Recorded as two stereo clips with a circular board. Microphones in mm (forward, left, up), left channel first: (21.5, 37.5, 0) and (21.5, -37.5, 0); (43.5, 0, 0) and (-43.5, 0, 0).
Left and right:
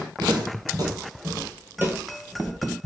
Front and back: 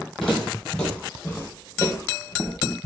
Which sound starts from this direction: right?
Footsteps, at 0.2 s.